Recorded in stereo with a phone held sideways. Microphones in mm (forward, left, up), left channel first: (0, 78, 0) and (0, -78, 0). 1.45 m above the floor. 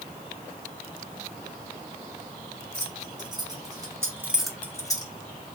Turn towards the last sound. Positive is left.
turn(degrees=25)  # may be behind; listen again after turning